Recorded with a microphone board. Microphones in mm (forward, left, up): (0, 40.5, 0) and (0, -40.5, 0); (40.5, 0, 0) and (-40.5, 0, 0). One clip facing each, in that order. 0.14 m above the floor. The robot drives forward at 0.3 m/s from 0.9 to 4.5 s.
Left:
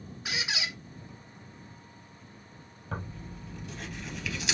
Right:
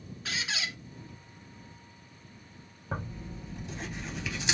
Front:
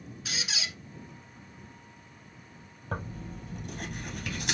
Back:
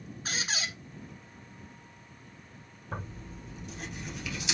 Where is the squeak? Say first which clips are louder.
Left 1 dB, back 3 dB; 155° left, 0.9 m.